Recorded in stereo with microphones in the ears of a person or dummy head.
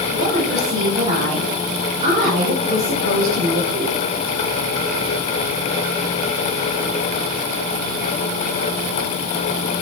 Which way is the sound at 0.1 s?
30° right (ahead or behind).